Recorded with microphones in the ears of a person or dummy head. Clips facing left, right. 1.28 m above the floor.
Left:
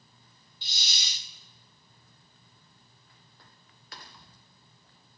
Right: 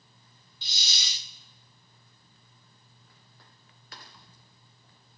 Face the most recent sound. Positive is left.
turn(degrees=-65)  # may be behind; listen again after turning